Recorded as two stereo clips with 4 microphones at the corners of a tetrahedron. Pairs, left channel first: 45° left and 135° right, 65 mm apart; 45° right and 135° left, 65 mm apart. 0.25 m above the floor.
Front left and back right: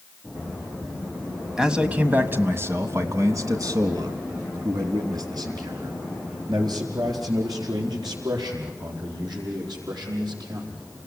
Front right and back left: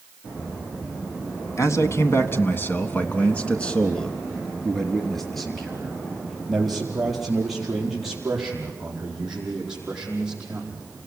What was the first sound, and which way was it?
A man speaking, 55° right.